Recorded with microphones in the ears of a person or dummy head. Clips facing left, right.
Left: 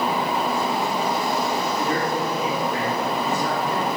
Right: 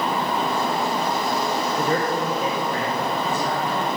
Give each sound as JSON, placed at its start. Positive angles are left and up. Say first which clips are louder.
{"t": 1.8, "sound": "a man speaking", "louder": "right 1 dB", "side_deg": -50, "distance_m": 1.4}